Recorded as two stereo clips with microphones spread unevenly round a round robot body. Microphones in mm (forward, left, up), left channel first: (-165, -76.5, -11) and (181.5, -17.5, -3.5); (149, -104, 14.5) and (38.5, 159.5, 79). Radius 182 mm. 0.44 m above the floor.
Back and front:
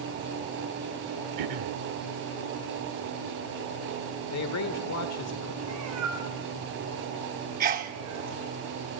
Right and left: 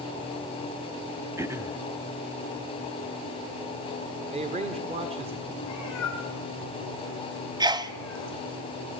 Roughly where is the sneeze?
Ahead left.